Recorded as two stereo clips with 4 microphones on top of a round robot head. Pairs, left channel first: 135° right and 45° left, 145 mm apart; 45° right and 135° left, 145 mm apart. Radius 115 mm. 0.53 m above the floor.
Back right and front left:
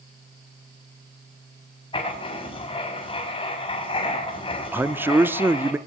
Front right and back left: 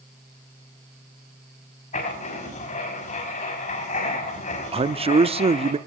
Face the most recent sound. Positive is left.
turn(degrees=115)